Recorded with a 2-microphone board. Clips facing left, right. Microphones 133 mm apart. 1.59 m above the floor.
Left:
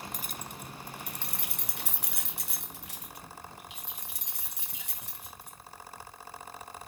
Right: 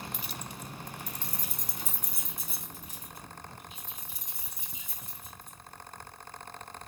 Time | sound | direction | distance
0.1 | keys jangling | 45° left (ahead or behind) | 0.7 m